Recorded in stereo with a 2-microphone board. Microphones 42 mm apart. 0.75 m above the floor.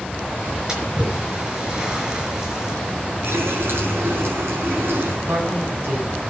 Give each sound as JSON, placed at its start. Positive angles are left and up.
{"t": 0.7, "sound": "a splash", "side_deg": -25, "distance_m": 5.0}
{"t": 3.2, "sound": "a running tap", "side_deg": -80, "distance_m": 5.5}
{"t": 5.2, "sound": "a woman speaking", "side_deg": -70, "distance_m": 6.0}